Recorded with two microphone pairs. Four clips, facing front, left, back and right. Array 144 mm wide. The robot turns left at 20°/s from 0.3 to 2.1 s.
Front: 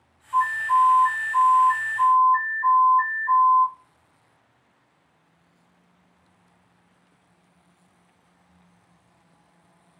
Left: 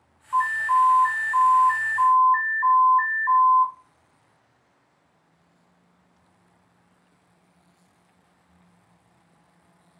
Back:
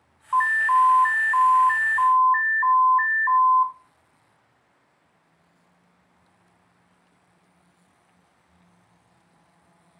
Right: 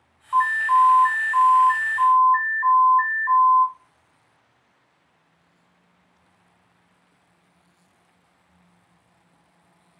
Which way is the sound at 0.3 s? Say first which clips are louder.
Right 3 dB, back 1 dB; 170° right.